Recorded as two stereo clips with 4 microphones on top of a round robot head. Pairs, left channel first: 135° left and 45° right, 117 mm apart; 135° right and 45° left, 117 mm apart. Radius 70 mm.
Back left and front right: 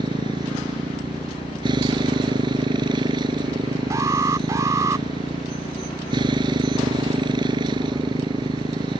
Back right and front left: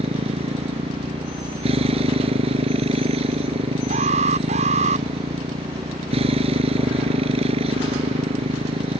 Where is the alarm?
20° left.